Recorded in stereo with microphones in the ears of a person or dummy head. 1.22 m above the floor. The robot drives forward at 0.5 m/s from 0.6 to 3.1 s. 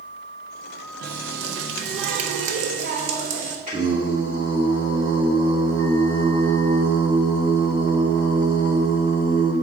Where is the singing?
40° right (ahead or behind), 3 m.